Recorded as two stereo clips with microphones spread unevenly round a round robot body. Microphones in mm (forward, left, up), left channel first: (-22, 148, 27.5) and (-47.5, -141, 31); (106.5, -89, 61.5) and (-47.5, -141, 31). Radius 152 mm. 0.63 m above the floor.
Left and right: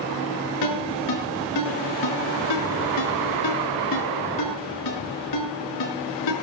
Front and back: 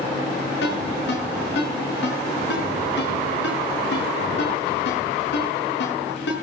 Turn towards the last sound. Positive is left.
turn(degrees=60)